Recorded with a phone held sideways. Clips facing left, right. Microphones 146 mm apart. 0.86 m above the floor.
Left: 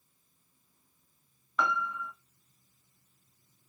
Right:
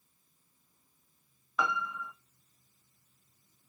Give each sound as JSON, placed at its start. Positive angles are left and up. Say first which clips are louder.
{"t": 1.6, "sound": "a piano", "louder": "left 2 dB", "side_deg": -5, "distance_m": 0.9}